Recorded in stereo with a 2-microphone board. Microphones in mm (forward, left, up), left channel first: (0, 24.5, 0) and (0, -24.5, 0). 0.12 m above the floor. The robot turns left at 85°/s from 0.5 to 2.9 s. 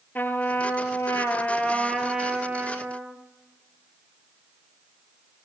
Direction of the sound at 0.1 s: 135° left.